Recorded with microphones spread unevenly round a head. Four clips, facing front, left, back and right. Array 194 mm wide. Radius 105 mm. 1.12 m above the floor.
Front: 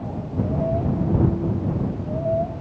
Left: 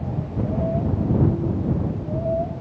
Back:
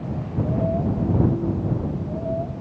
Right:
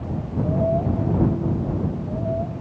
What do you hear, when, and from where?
Only background noise.